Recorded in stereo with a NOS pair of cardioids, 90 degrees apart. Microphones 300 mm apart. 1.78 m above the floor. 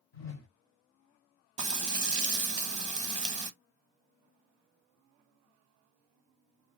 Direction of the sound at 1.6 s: 25° right.